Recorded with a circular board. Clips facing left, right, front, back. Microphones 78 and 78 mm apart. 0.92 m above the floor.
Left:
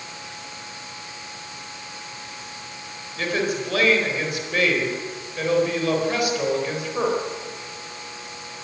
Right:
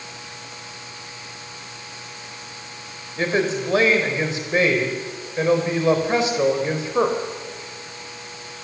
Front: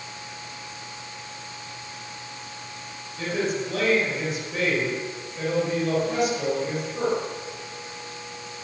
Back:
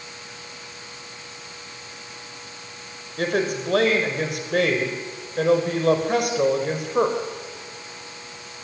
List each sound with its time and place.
3.2 s a woman speaking: 155° right, 4 m